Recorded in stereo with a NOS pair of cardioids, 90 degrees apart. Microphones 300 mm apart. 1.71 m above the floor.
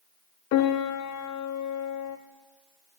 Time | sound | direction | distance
0.5 | a piano | 70° left | 0.7 m